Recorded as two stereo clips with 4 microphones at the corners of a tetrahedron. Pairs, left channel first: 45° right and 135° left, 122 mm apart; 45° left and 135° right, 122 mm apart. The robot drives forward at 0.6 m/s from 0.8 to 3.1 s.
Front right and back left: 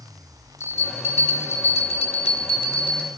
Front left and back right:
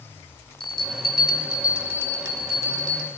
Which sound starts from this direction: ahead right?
A bell, at 0.6 s.